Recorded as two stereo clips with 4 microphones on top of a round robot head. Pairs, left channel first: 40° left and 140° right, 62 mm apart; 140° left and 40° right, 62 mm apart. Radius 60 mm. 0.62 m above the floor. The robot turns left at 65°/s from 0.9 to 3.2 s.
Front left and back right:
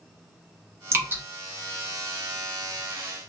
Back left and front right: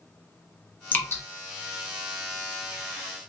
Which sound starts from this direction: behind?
Dripping, at 0.9 s.